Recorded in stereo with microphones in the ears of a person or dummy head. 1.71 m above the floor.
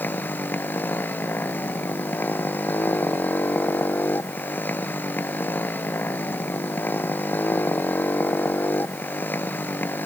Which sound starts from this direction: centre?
A motorcycle, at 0.0 s.